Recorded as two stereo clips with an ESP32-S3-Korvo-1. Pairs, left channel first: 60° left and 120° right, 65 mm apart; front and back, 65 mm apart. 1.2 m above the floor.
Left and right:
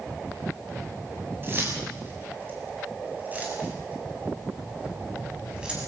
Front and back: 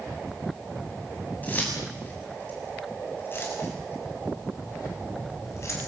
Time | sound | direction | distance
1.4 | keys jangling | 65° right | 7 m